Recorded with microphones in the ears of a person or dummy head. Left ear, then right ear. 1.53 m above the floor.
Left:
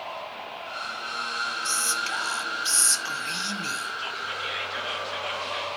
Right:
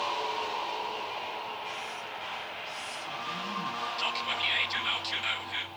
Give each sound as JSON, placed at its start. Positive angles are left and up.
{"t": 1.6, "sound": "whispering", "side_deg": 75, "distance_m": 1.4}
{"t": 4.0, "sound": "whispering", "side_deg": -25, "distance_m": 2.0}